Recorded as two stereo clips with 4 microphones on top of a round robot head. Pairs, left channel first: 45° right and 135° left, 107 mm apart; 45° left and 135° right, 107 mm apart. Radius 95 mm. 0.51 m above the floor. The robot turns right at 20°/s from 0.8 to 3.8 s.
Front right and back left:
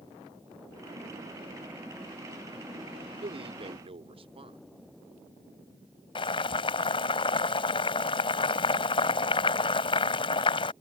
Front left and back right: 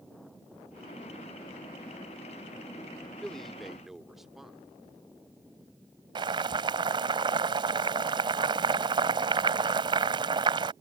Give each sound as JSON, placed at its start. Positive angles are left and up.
{"t": 3.2, "sound": "a man speaking", "azimuth_deg": 125}
{"t": 6.2, "sound": "boiling", "azimuth_deg": -90}